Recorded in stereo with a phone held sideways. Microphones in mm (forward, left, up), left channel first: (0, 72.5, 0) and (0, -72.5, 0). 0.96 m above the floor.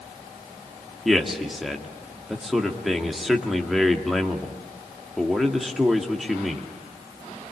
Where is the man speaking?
Centre (ahead or behind), 1.9 m.